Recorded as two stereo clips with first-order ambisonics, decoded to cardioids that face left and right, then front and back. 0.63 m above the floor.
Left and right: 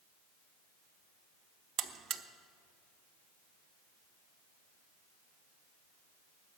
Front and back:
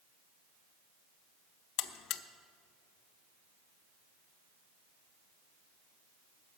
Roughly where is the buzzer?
Ahead right.